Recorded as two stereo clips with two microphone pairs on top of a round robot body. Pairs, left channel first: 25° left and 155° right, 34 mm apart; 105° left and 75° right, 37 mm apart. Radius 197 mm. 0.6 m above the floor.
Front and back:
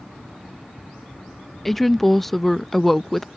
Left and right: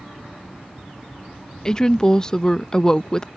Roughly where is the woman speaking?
Left.